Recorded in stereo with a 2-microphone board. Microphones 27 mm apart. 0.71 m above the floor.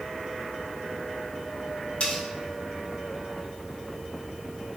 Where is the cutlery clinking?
55° left (ahead or behind), 1.2 m.